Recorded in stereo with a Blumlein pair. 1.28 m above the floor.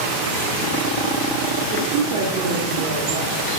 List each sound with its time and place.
1.7 s a woman speaking: 45° right, 3 m